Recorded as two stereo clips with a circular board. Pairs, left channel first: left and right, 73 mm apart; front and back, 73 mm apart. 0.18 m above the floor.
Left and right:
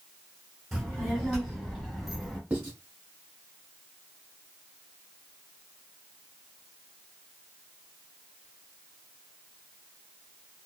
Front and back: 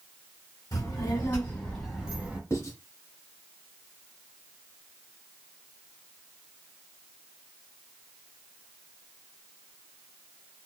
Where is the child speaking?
10° right, 1.5 m; by 2.4 s 175° left, 1.1 m.